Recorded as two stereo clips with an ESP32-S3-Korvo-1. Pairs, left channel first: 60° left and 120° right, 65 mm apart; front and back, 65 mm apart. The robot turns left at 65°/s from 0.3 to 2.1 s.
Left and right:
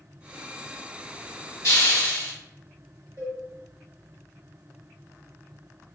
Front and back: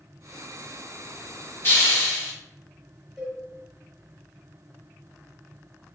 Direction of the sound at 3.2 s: 90° right.